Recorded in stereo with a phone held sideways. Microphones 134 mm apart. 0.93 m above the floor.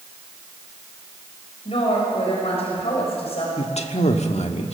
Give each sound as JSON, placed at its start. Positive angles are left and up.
{"t": 1.6, "sound": "a woman speaking", "side_deg": 55, "distance_m": 5.5}
{"t": 3.6, "sound": "a man speaking", "side_deg": 60, "distance_m": 1.5}